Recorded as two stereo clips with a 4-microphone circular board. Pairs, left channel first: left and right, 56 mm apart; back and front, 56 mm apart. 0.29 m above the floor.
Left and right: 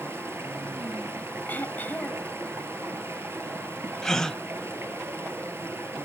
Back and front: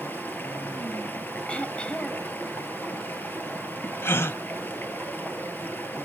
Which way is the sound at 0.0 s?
130° right.